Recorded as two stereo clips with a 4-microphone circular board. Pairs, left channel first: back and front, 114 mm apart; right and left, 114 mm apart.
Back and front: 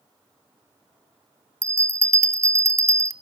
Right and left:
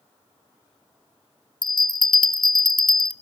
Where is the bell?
55° right, 0.9 m.